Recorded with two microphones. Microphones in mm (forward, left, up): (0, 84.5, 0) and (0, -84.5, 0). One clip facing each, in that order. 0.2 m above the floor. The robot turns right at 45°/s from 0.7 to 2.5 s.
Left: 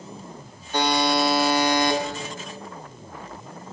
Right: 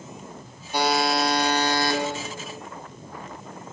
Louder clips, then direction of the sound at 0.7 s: Left 1 dB; 20° right.